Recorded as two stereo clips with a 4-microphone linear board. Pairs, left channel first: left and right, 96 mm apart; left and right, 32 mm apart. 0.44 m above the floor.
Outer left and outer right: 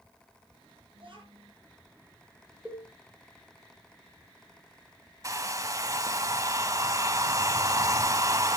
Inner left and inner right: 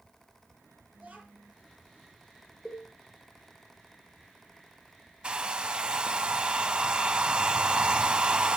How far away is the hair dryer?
About 0.8 m.